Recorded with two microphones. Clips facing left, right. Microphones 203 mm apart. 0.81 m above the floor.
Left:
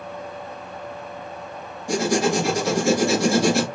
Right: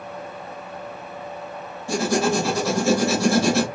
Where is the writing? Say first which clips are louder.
Left 1 dB; 15° left (ahead or behind), 1.5 m.